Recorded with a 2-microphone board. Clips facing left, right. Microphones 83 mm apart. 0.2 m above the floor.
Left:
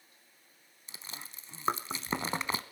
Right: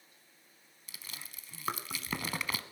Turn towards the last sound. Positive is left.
turn(degrees=30)  # may be behind; listen again after turning